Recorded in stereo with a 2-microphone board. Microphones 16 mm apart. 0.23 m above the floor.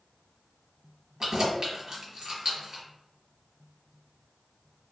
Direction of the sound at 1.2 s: 40° right (ahead or behind).